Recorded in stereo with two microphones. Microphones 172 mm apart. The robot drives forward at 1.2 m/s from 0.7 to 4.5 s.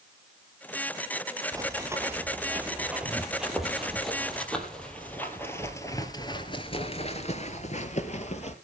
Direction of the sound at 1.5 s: 20° right (ahead or behind).